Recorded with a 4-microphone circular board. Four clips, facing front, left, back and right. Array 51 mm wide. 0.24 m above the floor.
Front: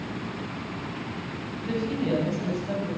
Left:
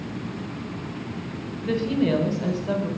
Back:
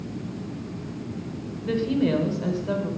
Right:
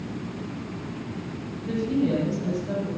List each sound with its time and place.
1.6 s a woman speaking: 110° left, 1.7 m